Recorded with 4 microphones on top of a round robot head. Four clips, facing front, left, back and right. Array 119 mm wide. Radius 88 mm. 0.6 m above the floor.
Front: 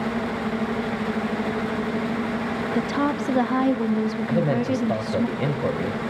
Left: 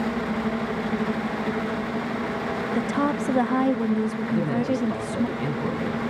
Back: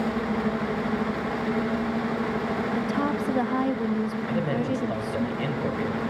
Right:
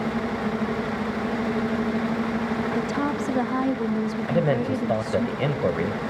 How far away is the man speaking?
About 3.5 m.